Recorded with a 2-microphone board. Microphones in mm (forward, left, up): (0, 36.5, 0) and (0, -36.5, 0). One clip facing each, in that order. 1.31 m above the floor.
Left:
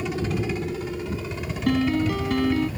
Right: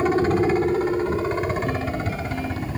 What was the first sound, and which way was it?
A helicopter, 45° right (ahead or behind).